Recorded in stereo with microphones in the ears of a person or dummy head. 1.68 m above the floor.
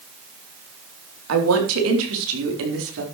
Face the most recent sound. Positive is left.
turn(degrees=-75)  # may be behind; listen again after turning